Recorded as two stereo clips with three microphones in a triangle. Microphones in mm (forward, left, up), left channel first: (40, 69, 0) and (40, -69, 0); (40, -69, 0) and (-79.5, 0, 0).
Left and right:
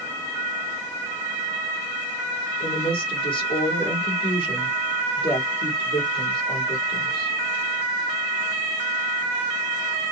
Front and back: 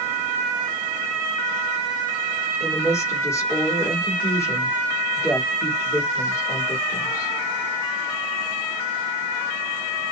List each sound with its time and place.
2.6 s a woman speaking: 40° left, 3 m